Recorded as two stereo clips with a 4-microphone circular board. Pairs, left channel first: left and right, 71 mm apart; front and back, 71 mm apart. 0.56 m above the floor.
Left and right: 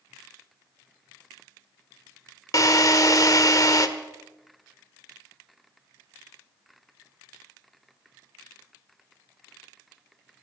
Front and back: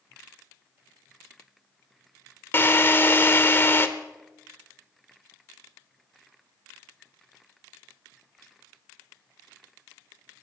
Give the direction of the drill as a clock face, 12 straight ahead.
10 o'clock.